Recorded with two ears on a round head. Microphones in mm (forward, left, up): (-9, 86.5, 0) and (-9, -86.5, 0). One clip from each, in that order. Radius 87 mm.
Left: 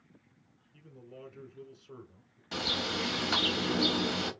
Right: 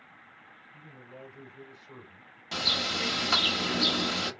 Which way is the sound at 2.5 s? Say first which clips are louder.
Right 4 dB; 20° right (ahead or behind).